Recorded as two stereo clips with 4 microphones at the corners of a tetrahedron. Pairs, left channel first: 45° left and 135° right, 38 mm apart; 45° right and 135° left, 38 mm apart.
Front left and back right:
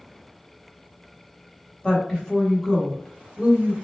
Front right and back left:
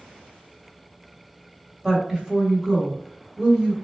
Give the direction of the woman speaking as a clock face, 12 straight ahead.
10 o'clock.